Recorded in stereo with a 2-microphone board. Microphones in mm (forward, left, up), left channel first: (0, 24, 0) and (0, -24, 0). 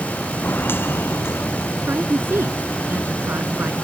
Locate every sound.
0.4 s footsteps: 45° left (ahead or behind); by 1.7 s 65° left (ahead or behind)
1.8 s a woman speaking: 55° right (ahead or behind)